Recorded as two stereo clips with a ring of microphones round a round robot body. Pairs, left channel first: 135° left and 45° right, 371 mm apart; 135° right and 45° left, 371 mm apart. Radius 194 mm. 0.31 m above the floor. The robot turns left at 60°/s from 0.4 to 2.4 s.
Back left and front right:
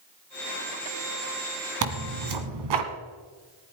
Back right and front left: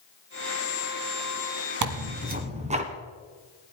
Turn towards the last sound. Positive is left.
turn(degrees=-30)